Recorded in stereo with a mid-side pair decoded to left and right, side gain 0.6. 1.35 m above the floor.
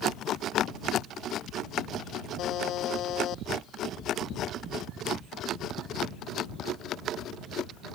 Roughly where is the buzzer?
Ahead left.